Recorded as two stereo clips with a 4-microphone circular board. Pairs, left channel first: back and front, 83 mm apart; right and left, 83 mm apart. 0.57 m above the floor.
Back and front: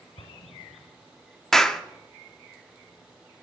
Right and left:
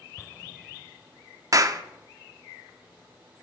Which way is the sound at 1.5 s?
95° left.